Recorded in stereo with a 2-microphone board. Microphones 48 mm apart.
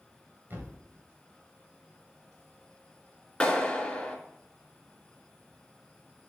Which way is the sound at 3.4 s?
15° left (ahead or behind).